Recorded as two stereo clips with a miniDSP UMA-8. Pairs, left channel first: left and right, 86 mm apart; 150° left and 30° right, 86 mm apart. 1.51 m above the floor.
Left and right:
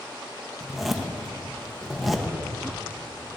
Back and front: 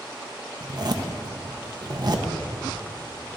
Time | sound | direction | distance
0.6 | a zipper | 5° right | 1.1 m